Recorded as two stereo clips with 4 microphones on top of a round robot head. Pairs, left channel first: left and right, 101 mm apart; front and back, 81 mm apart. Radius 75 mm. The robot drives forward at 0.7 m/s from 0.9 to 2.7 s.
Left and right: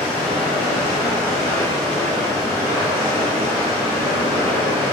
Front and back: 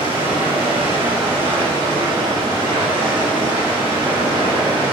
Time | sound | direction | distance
0.0 | running water | 175° left | 1.5 m